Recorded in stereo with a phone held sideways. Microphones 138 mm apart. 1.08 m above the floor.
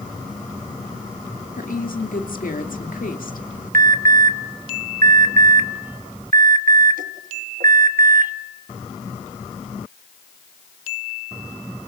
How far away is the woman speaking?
About 2.5 m.